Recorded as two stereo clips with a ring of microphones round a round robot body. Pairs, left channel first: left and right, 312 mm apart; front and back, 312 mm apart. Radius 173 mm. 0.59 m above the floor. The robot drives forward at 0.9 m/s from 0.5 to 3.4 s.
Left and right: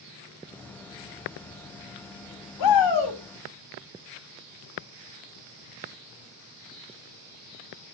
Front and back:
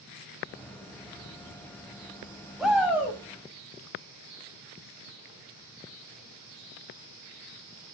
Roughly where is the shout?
Left.